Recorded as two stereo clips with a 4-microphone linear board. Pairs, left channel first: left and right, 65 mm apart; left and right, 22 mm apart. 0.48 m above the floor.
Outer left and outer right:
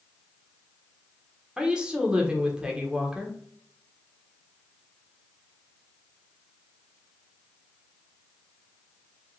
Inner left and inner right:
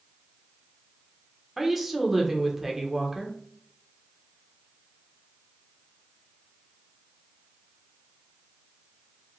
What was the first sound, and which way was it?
A woman speaking, 15° right (ahead or behind).